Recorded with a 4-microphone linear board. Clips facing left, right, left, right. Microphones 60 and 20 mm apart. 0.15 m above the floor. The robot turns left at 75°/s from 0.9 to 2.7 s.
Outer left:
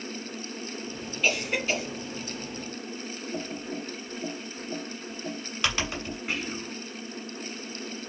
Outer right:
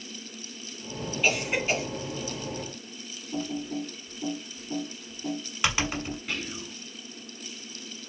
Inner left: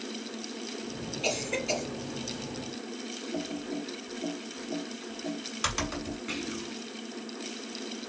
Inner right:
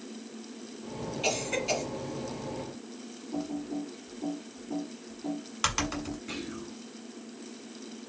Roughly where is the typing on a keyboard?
Centre.